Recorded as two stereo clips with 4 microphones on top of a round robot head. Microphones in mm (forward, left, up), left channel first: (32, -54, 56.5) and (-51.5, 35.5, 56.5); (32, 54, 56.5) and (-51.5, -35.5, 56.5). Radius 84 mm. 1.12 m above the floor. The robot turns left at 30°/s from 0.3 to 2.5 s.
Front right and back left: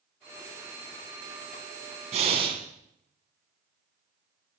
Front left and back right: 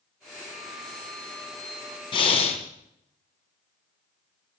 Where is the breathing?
95° left, 1.7 m; by 2.6 s 80° left, 1.7 m.